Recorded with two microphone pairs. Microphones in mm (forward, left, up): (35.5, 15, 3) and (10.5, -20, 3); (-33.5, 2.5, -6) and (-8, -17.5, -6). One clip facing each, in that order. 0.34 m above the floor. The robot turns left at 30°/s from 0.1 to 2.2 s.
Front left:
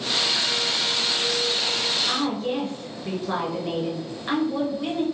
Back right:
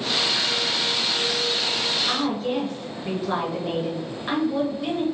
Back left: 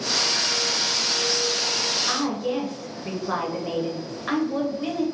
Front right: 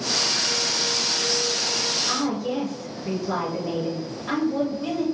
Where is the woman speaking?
155° left, 1.1 m; by 5.0 s 150° left, 1.1 m.